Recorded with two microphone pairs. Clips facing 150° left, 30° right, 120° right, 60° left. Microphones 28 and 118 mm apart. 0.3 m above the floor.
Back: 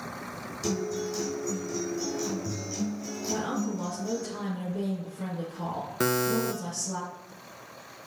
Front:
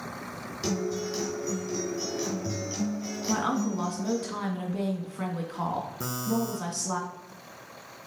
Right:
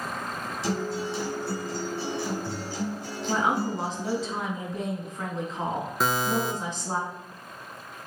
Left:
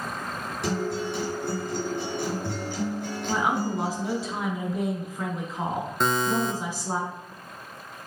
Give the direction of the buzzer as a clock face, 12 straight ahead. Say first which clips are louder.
Back 6 dB, left 2 dB; 7 o'clock.